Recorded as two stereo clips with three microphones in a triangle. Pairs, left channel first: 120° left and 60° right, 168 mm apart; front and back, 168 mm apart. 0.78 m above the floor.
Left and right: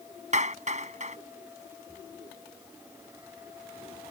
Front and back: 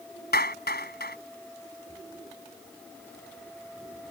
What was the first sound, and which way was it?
A clap, 15° right.